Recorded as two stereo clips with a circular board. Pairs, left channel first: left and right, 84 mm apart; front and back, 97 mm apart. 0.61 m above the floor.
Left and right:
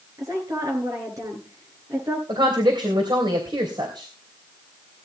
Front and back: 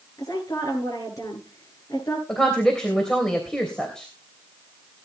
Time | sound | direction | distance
0.2 | a woman speaking | 50° right | 8 m
2.3 | a woman speaking | 85° right | 3 m